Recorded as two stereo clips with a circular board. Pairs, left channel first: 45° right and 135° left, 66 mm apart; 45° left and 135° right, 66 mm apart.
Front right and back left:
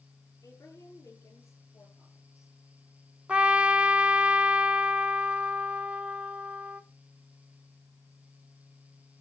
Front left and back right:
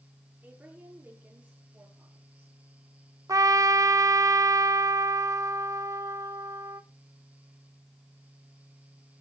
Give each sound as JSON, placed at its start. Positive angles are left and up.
{"t": 0.4, "sound": "a woman speaking", "azimuth_deg": -70, "distance_m": 7.0}
{"t": 3.3, "sound": "a trumpet", "azimuth_deg": -155, "distance_m": 1.1}